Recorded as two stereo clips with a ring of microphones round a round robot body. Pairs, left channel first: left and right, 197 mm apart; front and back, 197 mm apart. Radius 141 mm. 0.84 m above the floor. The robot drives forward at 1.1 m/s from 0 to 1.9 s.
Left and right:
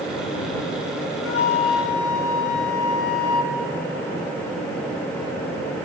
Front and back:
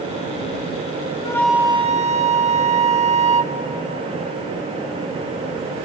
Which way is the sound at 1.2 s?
70° left.